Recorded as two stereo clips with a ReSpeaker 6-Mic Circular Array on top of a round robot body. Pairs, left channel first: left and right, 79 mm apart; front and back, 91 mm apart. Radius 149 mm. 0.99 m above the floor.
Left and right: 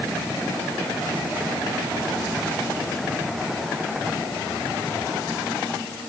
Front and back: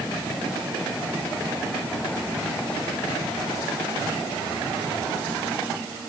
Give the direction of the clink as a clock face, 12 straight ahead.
I don't hear a clink.